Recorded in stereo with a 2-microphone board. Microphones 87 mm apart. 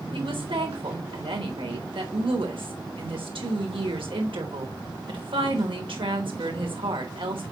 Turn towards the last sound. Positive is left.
turn(degrees=-80)